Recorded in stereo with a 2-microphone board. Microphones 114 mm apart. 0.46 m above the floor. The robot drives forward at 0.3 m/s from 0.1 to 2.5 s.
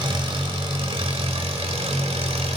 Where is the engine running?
50° right (ahead or behind), 1.2 m; by 2.6 s 65° right (ahead or behind), 1.0 m.